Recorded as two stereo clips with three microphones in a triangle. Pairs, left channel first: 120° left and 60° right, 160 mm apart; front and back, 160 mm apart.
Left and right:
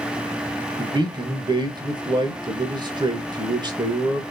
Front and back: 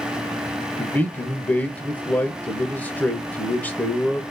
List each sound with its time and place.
0.8 s a man speaking: 70° right, 0.9 m